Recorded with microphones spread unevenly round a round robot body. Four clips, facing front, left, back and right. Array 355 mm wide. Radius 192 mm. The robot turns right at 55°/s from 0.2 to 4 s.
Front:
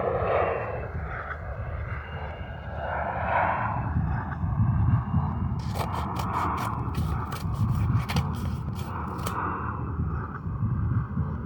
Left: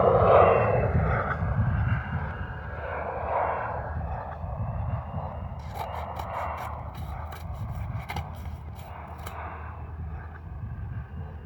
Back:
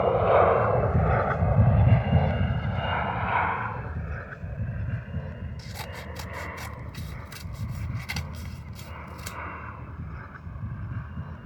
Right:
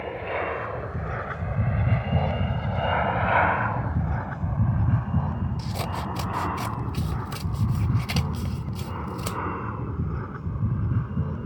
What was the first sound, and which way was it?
An aircraft, 110° left.